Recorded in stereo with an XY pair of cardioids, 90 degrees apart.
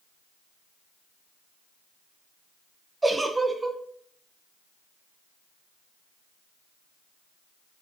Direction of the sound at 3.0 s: 25° right.